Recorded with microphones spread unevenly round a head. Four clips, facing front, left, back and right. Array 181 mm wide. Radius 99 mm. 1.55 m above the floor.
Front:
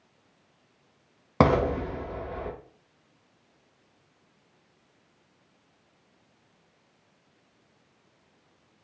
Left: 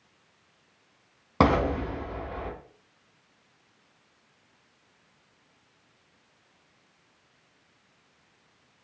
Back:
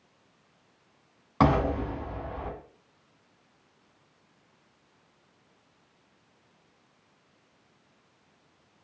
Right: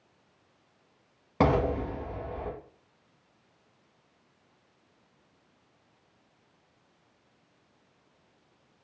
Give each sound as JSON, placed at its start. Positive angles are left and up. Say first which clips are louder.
{"t": 1.4, "sound": "an explosion", "louder": "left 2 dB, front 2 dB", "azimuth_deg": 5, "distance_m": 0.8}